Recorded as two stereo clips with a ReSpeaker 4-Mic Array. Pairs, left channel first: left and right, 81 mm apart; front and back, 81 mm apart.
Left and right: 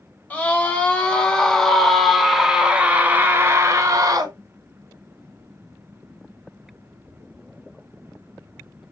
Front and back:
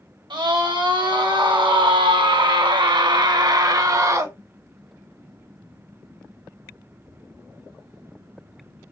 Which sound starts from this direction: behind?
A scream, at 0.3 s.